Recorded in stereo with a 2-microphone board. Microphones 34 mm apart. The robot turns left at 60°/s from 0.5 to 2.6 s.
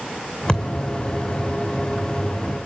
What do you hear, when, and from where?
0.5 s a thud: 25° left (ahead or behind), 2.5 m; by 0.7 s 40° left (ahead or behind), 2.5 m